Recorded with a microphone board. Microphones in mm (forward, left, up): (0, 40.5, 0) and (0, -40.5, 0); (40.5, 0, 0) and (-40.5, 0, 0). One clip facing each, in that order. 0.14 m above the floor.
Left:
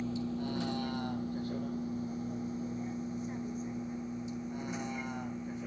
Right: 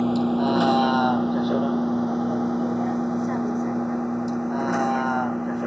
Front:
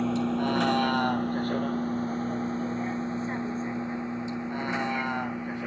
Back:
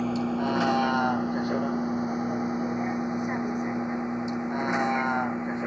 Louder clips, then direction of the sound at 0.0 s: Right 15 dB, even; 90° right.